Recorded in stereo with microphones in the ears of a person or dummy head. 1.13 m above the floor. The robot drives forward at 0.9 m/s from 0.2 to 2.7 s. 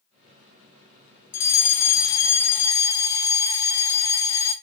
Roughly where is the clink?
No clink in this recording.